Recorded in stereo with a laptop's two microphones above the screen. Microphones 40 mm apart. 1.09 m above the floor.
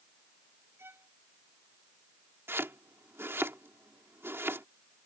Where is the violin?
80° right.